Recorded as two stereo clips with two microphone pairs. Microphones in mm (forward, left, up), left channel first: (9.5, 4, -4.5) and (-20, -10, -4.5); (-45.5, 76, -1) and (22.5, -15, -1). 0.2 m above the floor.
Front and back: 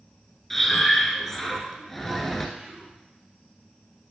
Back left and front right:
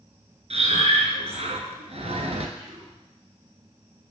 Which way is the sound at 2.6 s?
90° right.